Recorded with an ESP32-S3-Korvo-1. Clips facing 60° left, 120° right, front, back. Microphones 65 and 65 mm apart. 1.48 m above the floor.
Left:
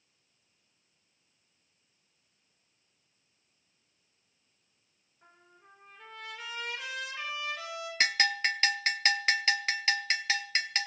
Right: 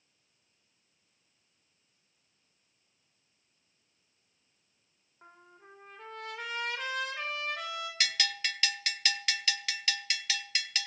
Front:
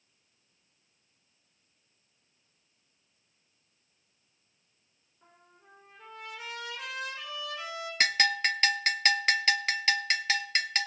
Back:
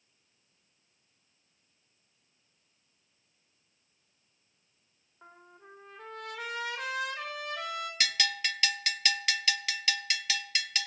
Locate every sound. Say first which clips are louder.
5.2 s a trumpet: right 4 dB, back 7 dB; 160° right, 3.5 m
8.0 s a bell: left 8 dB, front 7 dB; 25° left, 0.6 m